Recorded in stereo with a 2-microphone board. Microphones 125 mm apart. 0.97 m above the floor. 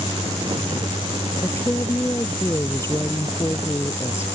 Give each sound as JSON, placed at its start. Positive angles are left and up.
{"t": 1.4, "sound": "a woman speaking", "side_deg": 20}